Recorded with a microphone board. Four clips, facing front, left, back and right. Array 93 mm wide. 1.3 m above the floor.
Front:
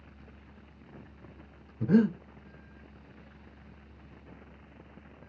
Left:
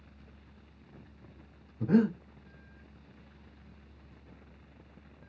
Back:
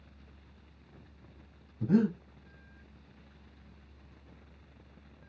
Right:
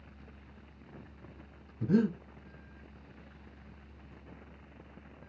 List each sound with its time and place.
1.8 s breathing: 45° left, 1.8 m